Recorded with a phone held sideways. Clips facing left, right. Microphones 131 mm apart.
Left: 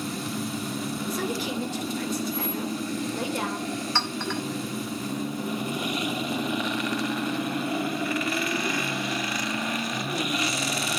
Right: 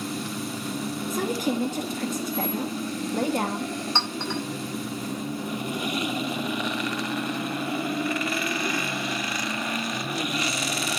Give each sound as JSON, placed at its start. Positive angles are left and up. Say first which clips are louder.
{"t": 1.1, "sound": "a woman speaking", "louder": "right 5 dB", "side_deg": -45, "distance_m": 1.2}
{"t": 4.0, "sound": "a clink", "louder": "even", "side_deg": -20, "distance_m": 1.9}